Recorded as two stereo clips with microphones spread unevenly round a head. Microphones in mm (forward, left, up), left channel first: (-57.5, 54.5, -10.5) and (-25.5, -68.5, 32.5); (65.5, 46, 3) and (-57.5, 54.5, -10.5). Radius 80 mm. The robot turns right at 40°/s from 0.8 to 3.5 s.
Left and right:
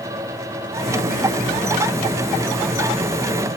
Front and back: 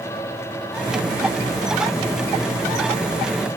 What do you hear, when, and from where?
Only background noise.